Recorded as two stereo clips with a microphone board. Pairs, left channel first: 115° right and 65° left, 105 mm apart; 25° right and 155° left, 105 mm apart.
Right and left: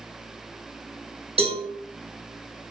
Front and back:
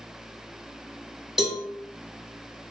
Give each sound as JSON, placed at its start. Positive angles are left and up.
{"t": 1.4, "sound": "a cowbell", "azimuth_deg": 70, "distance_m": 2.0}